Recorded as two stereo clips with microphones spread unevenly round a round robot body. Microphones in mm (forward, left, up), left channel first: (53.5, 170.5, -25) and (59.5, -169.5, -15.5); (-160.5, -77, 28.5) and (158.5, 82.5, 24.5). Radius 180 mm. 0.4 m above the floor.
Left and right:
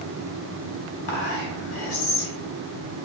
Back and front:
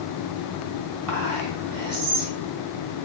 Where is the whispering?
55° left, 1.4 m.